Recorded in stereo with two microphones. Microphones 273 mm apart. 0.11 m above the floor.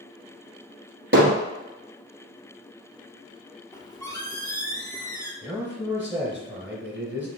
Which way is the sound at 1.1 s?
50° right (ahead or behind).